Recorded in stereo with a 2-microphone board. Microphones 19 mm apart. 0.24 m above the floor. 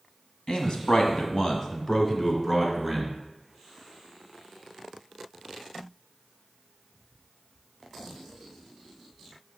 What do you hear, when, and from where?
0.5 s a man speaking: 50° left (ahead or behind), 1.6 m; by 3.2 s 10° left (ahead or behind), 2.5 m